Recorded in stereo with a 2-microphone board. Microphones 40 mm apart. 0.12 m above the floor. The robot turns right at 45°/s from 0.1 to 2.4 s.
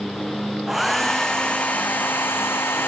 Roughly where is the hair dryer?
Ahead.